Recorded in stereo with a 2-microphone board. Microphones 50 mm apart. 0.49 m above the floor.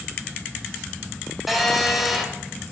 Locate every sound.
1.5 s a phone buzzing: 5° right (ahead or behind), 1.8 m